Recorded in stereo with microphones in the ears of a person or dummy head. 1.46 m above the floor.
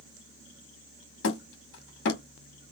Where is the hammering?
65° left (ahead or behind), 2 m.